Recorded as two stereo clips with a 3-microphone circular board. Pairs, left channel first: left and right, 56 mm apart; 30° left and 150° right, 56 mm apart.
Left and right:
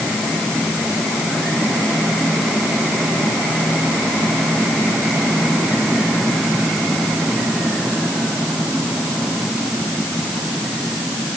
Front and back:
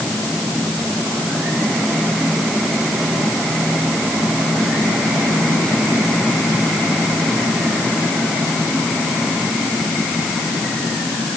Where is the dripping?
I don't hear dripping.